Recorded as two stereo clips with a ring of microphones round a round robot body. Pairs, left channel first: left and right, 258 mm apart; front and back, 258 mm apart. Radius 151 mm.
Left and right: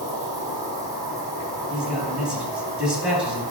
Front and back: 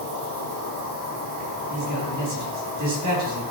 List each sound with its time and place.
0.0 s an insect: 165° right, 4 m
1.7 s a man speaking: 175° right, 4.5 m